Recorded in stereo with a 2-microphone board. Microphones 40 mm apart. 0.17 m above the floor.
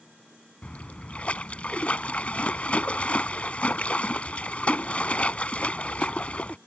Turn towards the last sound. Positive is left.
turn(degrees=35)  # may be behind; listen again after turning